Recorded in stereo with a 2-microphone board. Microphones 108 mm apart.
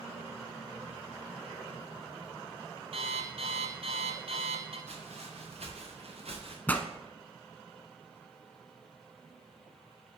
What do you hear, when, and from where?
2.9 s an alarm clock: 65° right (ahead or behind), 1.6 m
4.9 s footsteps: 85° right, 3.5 m; by 6.6 s 65° right (ahead or behind), 2 m
6.7 s a pop: 15° left (ahead or behind), 0.6 m